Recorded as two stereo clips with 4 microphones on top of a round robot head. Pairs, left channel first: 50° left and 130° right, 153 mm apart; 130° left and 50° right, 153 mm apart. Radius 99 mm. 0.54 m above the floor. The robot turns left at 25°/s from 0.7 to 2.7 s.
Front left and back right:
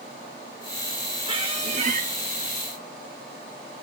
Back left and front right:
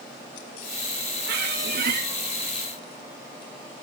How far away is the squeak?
About 3.5 m.